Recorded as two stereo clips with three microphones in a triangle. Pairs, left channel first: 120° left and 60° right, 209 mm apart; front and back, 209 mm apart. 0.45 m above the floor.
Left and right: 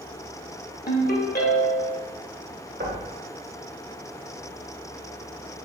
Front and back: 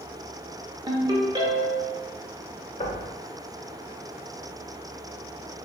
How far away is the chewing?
I don't hear chewing.